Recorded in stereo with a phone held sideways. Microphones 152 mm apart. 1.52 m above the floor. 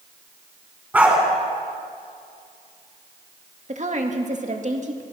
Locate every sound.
0.9 s a dog barking: 10° right (ahead or behind), 5 m
3.7 s a woman speaking: 50° right (ahead or behind), 2 m